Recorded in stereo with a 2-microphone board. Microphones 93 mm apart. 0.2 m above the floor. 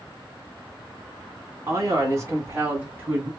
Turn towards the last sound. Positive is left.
turn(degrees=-10)  # may be behind; listen again after turning